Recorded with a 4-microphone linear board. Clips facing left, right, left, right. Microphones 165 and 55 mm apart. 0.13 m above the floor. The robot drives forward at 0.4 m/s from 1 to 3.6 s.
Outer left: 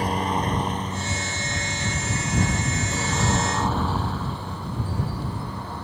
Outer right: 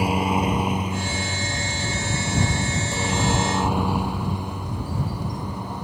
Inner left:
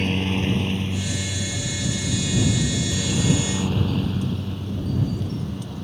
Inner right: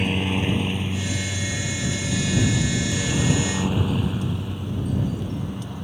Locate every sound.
0.0 s a helicopter: 10° right (ahead or behind); by 5.8 s 15° right (ahead or behind)